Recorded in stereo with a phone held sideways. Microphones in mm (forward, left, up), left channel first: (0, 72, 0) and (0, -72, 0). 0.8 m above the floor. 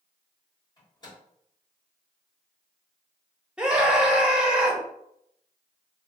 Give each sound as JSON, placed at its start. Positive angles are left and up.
{"t": 0.8, "sound": "a microwave", "side_deg": 30, "distance_m": 1.5}
{"t": 3.6, "sound": "a scream", "side_deg": -5, "distance_m": 0.9}